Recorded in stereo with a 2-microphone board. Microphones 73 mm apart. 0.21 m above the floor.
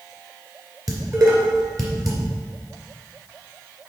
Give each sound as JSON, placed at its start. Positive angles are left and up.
{"t": 0.9, "sound": "dishes clattering", "side_deg": -50, "distance_m": 2.0}